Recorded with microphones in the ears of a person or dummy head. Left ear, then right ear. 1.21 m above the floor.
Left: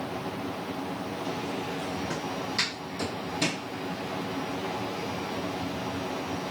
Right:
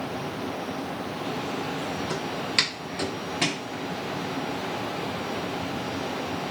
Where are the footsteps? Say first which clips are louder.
Right 5 dB; 45° right (ahead or behind), 1.7 m; by 3.6 s 10° right (ahead or behind), 1.2 m.